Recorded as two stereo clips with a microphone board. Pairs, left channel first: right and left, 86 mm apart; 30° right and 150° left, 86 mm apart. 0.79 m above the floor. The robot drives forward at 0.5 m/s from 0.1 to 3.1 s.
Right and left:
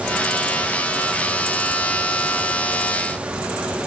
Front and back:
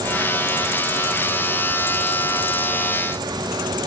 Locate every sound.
Only background noise.